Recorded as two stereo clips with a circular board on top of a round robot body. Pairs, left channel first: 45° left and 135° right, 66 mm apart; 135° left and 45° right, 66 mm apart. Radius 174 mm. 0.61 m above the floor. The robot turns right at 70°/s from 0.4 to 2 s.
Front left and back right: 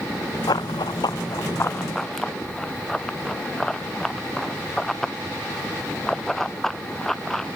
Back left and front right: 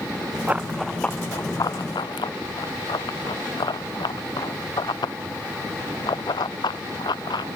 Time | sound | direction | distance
0.5 | running footsteps | 20° left | ?